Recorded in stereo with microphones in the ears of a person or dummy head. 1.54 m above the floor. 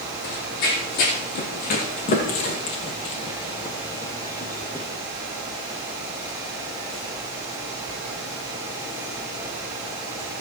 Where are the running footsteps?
60° left (ahead or behind), 3 m; by 4.9 s 5° left (ahead or behind), 1.9 m.